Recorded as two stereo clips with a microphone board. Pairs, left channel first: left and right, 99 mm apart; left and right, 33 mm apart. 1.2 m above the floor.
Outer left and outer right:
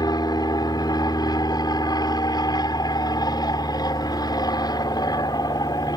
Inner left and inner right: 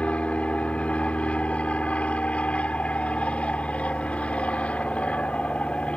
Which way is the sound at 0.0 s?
45° left (ahead or behind).